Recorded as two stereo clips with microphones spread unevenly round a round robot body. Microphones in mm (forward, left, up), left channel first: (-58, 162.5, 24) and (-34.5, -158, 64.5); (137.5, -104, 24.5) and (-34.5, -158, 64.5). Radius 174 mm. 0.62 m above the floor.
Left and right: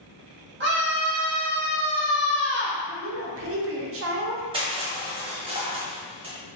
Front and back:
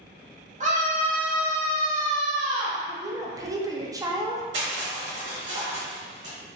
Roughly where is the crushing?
Behind.